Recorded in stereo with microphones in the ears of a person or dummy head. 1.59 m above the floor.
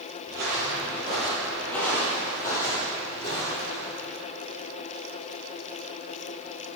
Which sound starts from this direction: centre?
Footsteps, at 0.3 s.